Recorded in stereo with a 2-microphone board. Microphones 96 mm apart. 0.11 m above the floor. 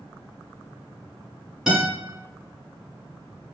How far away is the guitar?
About 1.7 m.